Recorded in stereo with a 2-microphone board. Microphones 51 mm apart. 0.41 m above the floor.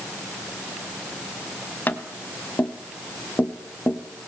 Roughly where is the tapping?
Left.